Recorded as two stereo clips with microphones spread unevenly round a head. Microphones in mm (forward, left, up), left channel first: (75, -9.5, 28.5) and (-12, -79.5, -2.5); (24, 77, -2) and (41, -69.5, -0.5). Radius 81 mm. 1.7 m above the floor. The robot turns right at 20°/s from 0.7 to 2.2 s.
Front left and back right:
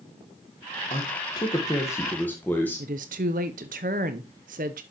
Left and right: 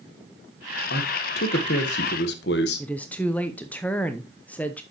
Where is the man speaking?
90° left, 1.3 m; by 2.9 s 115° left, 1.3 m.